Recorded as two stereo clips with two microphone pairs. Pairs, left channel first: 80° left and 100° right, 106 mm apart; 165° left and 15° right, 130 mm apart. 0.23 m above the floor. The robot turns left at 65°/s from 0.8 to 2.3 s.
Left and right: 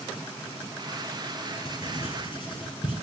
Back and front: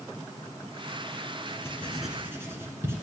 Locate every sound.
1.6 s writing: 95° left, 1.8 m; by 3.0 s 55° left, 1.8 m